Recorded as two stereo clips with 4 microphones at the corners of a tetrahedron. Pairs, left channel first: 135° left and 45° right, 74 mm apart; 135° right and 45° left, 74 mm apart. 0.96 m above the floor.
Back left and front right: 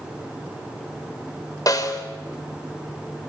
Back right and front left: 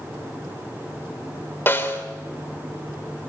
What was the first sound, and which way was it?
A snare drum, 165° left.